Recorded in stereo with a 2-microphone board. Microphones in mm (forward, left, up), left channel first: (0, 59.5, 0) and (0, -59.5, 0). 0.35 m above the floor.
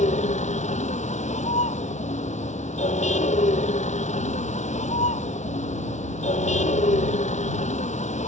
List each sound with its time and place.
0.0 s a vehicle: 80° left